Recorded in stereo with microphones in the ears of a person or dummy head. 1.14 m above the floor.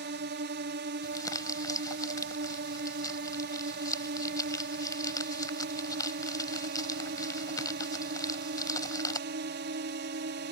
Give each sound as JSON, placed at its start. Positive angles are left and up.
{"t": 0.0, "sound": "a drone", "side_deg": -50}
{"t": 1.0, "sound": "crumpling", "side_deg": 20}